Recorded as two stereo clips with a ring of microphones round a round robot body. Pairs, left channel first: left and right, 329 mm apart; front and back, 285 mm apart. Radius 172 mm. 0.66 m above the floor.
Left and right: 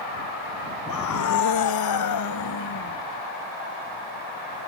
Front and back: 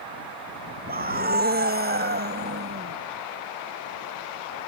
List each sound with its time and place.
0.9 s a scream: 125° left